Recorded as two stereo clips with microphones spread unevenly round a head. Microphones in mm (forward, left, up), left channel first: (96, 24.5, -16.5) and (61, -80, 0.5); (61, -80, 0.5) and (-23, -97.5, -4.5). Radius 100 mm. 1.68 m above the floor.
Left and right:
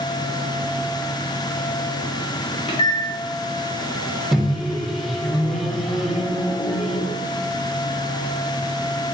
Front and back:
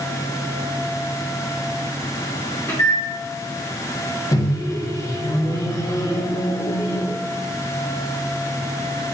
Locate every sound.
2.7 s a microwave: 70° left, 0.6 m
4.3 s a microwave: 25° right, 0.5 m